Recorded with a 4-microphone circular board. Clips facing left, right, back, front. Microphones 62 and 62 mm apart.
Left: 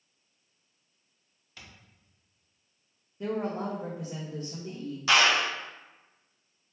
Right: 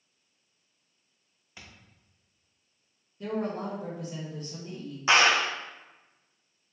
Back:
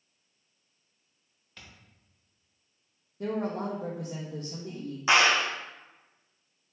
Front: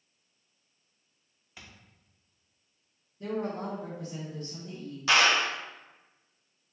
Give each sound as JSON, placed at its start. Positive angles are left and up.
{"t": 1.6, "sound": "a thud", "azimuth_deg": -60, "distance_m": 0.7}
{"t": 3.2, "sound": "a woman speaking", "azimuth_deg": 160, "distance_m": 0.6}
{"t": 5.1, "sound": "a clap", "azimuth_deg": -130, "distance_m": 0.5}